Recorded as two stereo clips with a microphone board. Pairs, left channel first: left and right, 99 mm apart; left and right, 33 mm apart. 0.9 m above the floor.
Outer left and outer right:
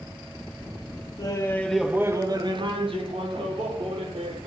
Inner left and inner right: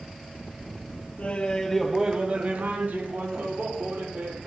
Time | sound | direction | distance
1.2 | laughter | 40° left (ahead or behind) | 1.4 m